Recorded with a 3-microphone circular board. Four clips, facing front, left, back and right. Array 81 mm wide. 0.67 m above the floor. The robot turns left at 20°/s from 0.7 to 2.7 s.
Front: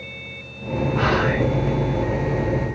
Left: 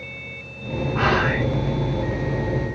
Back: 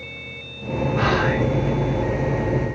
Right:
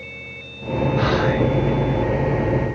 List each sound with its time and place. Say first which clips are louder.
0.9 s whispering: even, even; 85° left, 0.9 m; by 1.5 s 75° left, 0.9 m